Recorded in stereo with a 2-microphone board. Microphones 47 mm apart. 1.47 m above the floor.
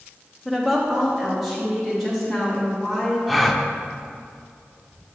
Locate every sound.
0.5 s a woman speaking: 10° right (ahead or behind), 1.1 m; by 3.2 s 5° left (ahead or behind), 4.5 m
3.3 s a gasp: centre (ahead or behind), 0.5 m